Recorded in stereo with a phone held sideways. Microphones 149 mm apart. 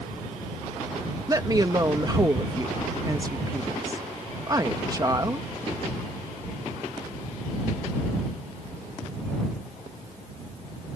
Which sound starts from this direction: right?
A woman speaking, at 1.3 s.